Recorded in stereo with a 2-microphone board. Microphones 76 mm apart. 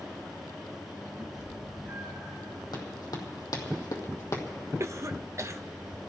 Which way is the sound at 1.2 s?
35° right (ahead or behind).